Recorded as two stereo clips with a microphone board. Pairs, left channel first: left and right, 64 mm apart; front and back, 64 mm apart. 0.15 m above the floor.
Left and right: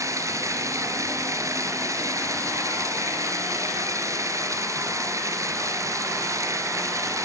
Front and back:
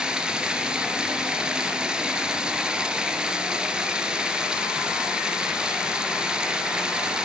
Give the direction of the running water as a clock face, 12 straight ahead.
4 o'clock.